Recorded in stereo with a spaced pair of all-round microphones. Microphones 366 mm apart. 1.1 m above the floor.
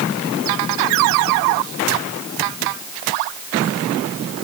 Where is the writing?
I don't hear writing.